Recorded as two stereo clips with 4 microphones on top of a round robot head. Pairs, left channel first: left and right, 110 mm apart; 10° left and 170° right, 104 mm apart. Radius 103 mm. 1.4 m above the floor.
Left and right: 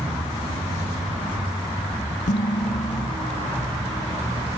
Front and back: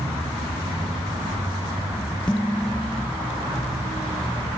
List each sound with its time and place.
2.3 s dishes clattering: 90° left, 1.3 m